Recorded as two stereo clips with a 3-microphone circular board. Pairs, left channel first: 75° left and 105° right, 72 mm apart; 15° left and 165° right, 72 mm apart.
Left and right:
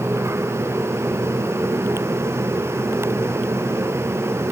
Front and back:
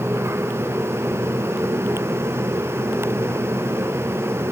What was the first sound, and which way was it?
Only background noise.